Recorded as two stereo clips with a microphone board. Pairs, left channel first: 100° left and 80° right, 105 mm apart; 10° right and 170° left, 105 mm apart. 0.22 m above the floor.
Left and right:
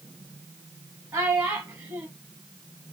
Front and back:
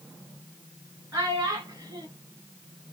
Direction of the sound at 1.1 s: 135° right.